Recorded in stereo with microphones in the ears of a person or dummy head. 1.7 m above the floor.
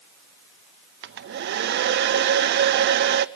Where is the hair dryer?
60° right (ahead or behind), 0.5 m.